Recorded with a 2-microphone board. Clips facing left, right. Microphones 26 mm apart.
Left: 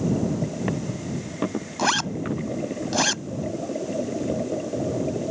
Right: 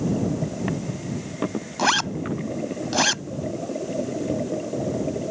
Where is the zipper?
10° right (ahead or behind).